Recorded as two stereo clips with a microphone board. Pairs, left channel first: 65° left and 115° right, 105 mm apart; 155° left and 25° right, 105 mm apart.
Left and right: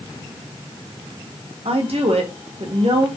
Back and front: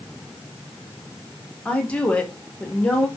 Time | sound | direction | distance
1.6 | a woman speaking | 125° right | 0.9 m